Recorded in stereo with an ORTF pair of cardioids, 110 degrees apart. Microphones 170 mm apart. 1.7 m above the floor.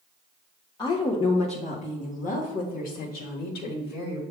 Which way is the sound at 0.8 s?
25° left.